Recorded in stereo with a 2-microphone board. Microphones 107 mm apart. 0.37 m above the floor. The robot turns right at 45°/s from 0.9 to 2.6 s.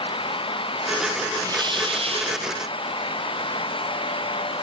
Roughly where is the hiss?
Behind right.